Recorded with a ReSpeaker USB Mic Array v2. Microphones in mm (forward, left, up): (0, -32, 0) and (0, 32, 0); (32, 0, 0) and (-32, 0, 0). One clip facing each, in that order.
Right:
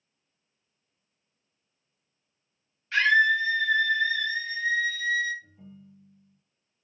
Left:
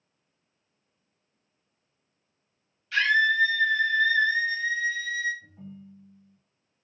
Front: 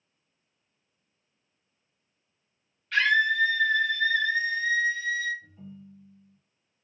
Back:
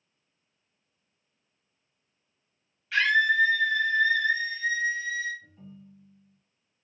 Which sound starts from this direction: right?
A scream, at 2.9 s.